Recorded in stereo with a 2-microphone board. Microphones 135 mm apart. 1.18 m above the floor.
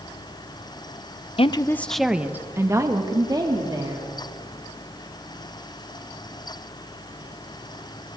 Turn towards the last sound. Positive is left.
turn(degrees=-30)  # may be behind; listen again after turning